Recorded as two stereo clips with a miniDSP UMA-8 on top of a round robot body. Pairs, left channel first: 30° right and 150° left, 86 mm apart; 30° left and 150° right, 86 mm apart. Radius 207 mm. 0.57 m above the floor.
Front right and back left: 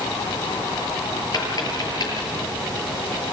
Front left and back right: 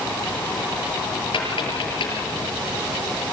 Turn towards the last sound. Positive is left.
turn(degrees=10)